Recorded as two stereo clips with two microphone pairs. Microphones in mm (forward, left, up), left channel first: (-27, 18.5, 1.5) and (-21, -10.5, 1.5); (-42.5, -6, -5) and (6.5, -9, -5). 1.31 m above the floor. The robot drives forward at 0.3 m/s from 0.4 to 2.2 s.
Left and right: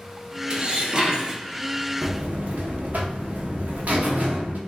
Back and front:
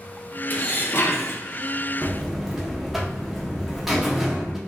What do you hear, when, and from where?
0.5 s dishes clattering: 135° right, 0.6 m; by 1.4 s 150° right, 0.8 m
2.0 s a buzzer: 85° right, 0.8 m; by 4.6 s 90° right, 0.8 m